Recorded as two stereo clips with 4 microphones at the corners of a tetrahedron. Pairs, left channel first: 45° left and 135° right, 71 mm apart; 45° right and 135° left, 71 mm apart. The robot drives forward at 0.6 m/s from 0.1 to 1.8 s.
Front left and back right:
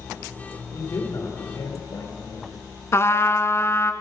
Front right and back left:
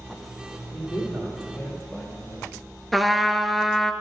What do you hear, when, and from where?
0.7 s a man speaking: 10° left, 3 m
2.9 s a trumpet: 45° left, 0.6 m